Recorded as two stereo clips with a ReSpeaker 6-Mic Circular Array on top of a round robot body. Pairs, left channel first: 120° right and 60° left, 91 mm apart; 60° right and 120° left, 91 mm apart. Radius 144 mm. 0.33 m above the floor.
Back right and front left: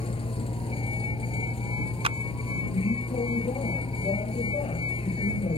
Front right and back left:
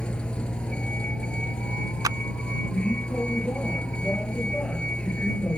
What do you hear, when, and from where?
0.0 s a vehicle: 140° right
2.0 s a clap: 70° left